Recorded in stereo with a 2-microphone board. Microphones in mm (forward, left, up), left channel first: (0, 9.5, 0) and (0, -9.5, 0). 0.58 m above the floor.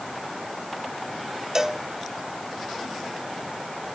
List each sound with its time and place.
1.6 s a cowbell: 30° right (ahead or behind), 1.0 m